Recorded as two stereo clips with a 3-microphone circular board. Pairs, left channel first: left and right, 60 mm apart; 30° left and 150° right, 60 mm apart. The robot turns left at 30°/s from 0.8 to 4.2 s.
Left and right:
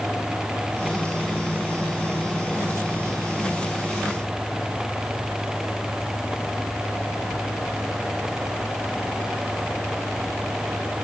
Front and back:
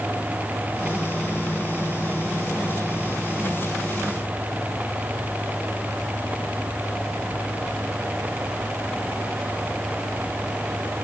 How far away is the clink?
No clink in this recording.